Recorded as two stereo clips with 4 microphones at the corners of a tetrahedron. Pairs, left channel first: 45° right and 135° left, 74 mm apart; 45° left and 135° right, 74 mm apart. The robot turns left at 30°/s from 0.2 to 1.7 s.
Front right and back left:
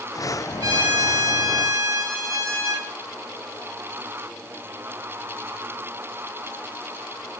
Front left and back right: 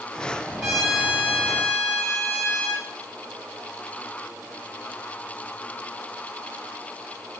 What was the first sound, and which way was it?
A trumpet, 140° left.